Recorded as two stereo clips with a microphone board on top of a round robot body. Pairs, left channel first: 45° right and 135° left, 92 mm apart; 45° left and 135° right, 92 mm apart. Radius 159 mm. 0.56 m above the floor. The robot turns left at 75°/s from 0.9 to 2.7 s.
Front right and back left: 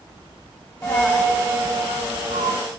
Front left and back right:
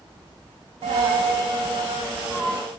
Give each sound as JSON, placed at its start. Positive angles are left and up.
{"t": 0.8, "sound": "a dropped coin", "azimuth_deg": -115, "distance_m": 0.8}